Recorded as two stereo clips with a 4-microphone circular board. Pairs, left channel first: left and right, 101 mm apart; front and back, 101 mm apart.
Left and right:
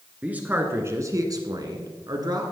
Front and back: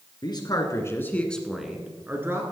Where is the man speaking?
20° right, 2 m; by 2.4 s 125° right, 2.5 m.